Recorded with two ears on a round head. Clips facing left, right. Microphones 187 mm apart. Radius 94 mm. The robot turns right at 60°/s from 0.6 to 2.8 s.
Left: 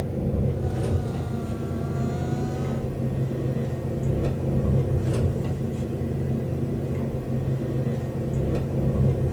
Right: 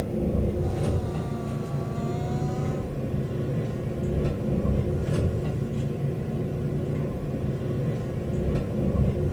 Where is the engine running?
Straight ahead, 0.9 m; by 9.3 s 135° left, 0.9 m.